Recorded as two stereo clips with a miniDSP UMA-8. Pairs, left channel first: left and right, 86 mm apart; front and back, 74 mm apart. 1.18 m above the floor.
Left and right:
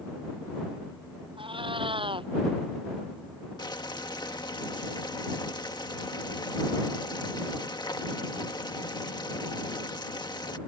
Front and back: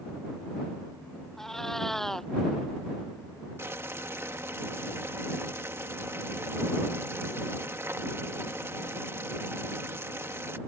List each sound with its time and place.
1.4 s a cat meowing: 85° right
3.6 s boiling: 125° left